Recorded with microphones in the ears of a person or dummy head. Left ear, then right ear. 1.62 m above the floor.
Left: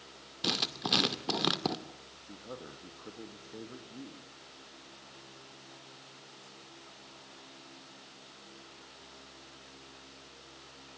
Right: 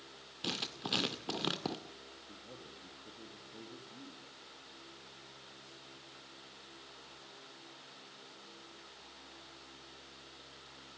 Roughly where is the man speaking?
Left.